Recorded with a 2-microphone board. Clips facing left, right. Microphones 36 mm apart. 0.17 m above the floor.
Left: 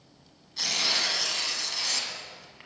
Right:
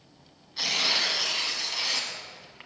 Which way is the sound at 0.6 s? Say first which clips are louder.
Right 2 dB; 15° right (ahead or behind).